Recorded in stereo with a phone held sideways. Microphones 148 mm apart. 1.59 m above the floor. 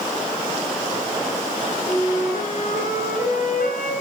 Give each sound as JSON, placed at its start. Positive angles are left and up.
{"t": 1.9, "sound": "a flute", "side_deg": 75, "distance_m": 7.5}